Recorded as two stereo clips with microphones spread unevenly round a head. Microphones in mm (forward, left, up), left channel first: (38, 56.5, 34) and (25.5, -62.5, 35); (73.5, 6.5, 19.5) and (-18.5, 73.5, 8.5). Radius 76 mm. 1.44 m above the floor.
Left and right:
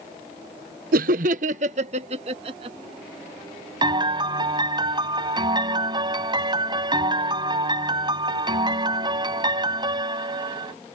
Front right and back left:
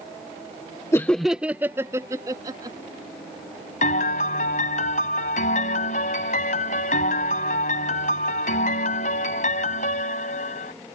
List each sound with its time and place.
0.9 s laughter: 110° right; by 2.8 s 150° right
3.8 s a piano: 45° right